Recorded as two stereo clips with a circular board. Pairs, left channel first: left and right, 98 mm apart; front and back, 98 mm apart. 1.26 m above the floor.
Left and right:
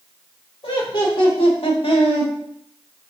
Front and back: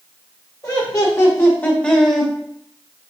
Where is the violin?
I don't hear a violin.